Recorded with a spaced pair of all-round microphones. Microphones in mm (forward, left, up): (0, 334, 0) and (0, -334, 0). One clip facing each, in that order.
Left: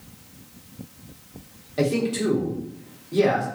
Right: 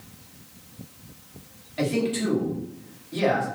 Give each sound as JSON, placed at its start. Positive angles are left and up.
{"t": 1.8, "sound": "a man speaking", "side_deg": 65, "distance_m": 1.6}